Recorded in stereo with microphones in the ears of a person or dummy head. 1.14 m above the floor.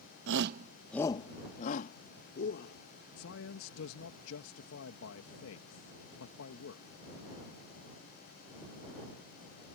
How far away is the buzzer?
I don't hear a buzzer.